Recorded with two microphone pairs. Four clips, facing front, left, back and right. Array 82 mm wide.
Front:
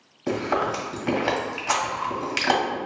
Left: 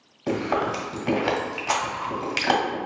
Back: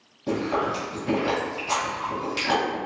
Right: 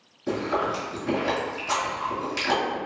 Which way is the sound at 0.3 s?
50° left.